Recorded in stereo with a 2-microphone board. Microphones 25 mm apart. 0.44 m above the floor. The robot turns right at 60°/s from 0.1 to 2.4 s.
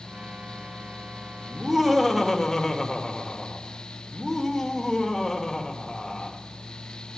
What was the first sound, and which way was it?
Laughter, 30° right.